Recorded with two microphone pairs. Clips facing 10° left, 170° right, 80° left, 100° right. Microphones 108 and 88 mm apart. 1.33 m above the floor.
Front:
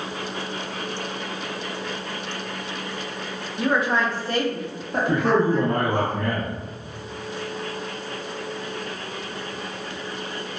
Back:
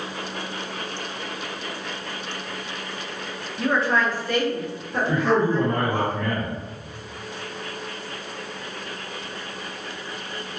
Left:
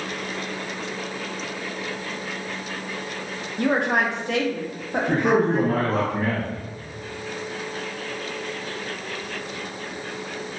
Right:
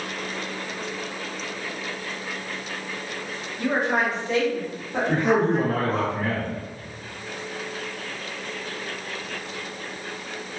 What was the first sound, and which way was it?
A woman speaking, 95° left.